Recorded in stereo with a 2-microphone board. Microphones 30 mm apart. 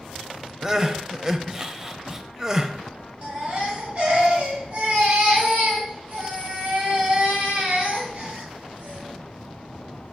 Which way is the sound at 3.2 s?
40° right (ahead or behind).